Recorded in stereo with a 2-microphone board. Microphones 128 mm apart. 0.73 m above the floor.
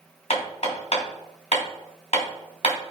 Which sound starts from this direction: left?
Hammering, at 0.3 s.